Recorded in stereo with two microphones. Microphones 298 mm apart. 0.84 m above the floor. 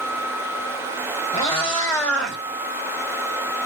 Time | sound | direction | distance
1.3 | a cat meowing | 20° left (ahead or behind) | 2 m